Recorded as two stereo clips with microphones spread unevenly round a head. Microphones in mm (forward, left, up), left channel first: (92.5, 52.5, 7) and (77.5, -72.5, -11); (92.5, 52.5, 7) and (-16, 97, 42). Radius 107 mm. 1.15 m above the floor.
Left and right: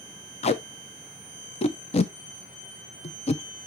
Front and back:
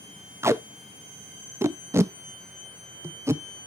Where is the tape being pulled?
80° left, 0.7 m.